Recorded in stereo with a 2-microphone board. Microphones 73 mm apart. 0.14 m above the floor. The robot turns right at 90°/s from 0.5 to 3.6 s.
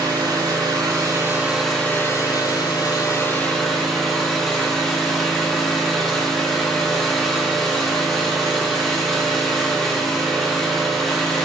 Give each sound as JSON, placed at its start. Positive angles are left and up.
{"t": 0.0, "sound": "an engine running", "azimuth_deg": -105, "distance_m": 2.0}